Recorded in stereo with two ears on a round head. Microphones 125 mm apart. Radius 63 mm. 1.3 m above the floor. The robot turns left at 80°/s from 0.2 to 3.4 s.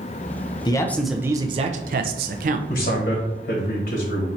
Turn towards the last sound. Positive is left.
turn(degrees=70)